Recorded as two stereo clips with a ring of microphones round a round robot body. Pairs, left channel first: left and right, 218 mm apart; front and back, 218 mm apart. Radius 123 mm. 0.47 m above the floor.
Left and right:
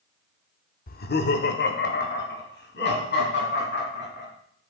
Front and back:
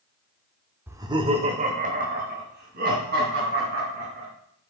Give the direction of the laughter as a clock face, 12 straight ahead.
9 o'clock.